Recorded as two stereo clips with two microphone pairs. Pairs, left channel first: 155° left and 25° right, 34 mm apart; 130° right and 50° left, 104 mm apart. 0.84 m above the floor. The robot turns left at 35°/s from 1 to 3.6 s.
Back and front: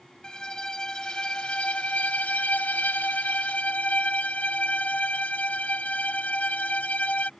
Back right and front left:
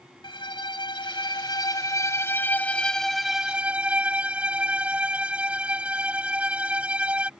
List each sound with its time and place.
0.2 s a violin: 140° right; by 7.3 s 125° left